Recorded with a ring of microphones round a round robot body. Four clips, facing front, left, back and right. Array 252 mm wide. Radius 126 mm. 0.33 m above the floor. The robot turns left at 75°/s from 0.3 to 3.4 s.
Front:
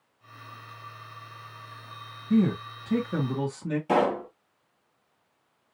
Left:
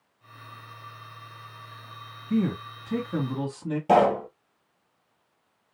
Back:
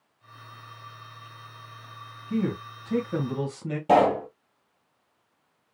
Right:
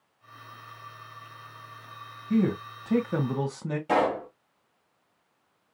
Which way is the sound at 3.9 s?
140° left.